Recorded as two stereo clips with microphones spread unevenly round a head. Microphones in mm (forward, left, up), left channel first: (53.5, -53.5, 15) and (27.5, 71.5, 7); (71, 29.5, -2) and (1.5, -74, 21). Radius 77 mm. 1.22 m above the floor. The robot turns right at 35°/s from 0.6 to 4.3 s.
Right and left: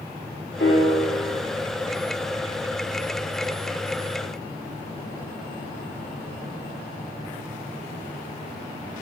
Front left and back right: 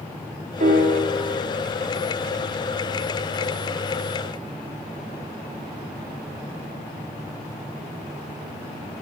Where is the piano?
110° right, 2.5 m; by 1.4 s 85° right, 2.5 m.